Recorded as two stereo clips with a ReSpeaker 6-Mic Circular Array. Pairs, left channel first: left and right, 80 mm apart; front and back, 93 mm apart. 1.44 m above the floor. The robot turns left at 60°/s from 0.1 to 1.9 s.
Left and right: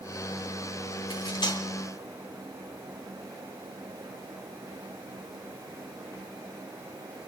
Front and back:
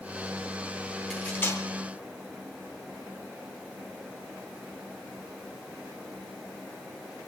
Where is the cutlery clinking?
85° left, 3 m; by 1.6 s 55° left, 3 m.